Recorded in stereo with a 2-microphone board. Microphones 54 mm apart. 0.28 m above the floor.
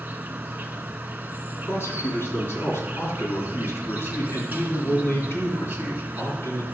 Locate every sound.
0.0 s an insect: 35° right (ahead or behind), 0.8 m
1.6 s a man speaking: 45° left (ahead or behind), 3.5 m